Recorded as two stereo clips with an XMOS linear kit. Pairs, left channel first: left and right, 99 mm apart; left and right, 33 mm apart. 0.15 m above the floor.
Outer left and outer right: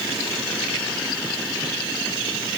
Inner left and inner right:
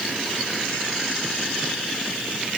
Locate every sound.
Only background noise.